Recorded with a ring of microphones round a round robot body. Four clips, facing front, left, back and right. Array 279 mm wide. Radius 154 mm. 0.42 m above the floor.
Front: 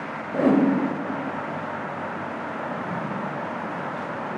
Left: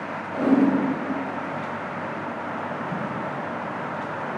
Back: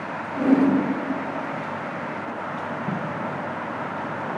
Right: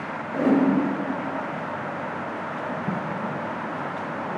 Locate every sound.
0.3 s a whoosh: 10° right, 2 m
2.9 s tape being pulled: 120° right, 3 m